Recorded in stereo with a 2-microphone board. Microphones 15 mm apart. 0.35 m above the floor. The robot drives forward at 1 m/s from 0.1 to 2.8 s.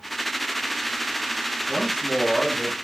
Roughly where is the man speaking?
Right.